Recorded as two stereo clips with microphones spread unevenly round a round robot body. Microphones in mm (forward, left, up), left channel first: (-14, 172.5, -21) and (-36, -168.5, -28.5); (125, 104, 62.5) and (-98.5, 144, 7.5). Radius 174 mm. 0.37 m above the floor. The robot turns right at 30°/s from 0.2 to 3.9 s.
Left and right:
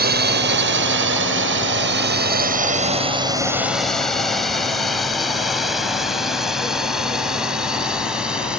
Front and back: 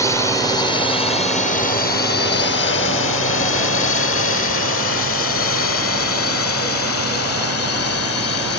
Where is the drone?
100° right; by 8.6 s 5° right.